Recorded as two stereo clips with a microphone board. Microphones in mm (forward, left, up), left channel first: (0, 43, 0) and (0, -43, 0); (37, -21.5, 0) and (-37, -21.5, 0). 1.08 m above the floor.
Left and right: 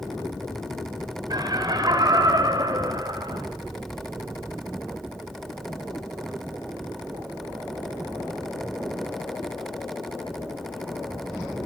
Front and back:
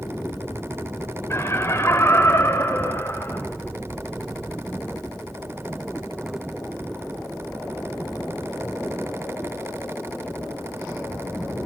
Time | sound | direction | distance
1.3 | laughter | 55° right | 4.5 m